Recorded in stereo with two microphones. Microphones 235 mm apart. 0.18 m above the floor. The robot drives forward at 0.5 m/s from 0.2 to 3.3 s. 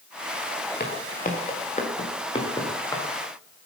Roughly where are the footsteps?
Left.